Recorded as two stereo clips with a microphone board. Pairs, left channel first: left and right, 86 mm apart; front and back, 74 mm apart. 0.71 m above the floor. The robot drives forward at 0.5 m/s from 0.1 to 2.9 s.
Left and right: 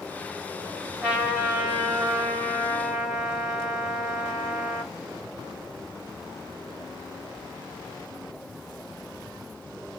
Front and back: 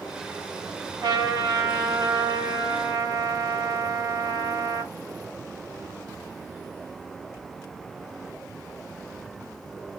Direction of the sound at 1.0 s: 165° right.